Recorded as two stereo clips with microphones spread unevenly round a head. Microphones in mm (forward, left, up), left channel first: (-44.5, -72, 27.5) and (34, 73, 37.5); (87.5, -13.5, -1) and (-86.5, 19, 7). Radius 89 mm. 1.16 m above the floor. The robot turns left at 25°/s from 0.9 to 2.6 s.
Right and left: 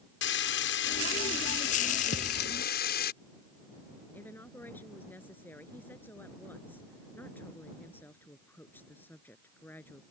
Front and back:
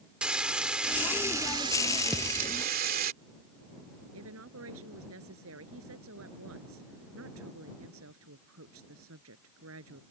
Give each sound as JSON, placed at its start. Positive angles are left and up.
{"t": 0.2, "sound": "frying", "azimuth_deg": -105}
{"t": 2.1, "sound": "a thud", "azimuth_deg": -100}
{"t": 4.1, "sound": "a woman speaking", "azimuth_deg": 160}